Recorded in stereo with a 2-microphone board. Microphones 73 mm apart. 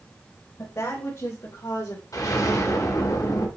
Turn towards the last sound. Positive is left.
turn(degrees=50)  # may be behind; listen again after turning